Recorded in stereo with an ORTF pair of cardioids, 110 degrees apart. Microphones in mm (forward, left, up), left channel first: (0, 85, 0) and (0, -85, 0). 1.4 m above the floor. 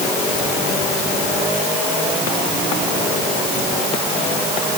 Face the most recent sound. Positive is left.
No sound to turn to.